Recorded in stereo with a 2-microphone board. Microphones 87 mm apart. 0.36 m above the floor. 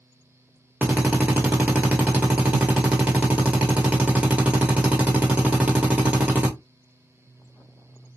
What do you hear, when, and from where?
0.8 s a drill: 15° right (ahead or behind), 1.3 m